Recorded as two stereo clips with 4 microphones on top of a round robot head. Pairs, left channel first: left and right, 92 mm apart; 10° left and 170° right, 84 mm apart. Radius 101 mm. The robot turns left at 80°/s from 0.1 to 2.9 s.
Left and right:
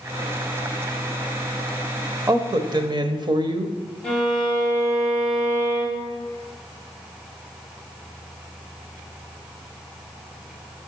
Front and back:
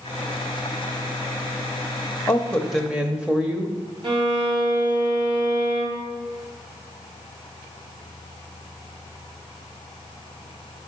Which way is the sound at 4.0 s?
175° left.